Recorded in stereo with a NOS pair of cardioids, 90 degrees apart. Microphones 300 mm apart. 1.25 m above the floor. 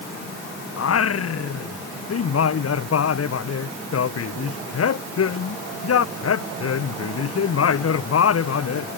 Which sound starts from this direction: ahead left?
Singing, at 0.8 s.